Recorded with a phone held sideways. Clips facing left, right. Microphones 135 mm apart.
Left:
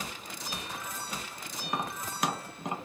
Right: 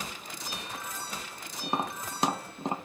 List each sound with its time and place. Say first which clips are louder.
1.6 s tapping: right 3 dB; 30° right (ahead or behind), 0.7 m